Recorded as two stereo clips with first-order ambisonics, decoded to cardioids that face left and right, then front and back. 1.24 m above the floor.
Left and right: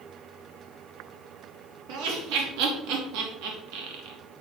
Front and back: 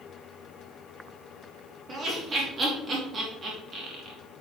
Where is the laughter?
115° right, 2.5 m.